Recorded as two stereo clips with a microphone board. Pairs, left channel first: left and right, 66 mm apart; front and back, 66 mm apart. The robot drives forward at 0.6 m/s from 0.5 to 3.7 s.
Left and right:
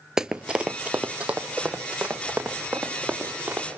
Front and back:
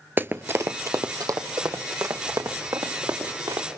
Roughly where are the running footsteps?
Behind.